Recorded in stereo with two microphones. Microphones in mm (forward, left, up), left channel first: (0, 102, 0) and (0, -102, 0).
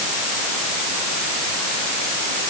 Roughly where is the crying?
I don't hear crying.